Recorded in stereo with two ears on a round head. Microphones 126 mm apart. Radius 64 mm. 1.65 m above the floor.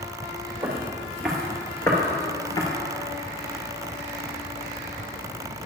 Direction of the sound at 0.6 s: 10° right (ahead or behind).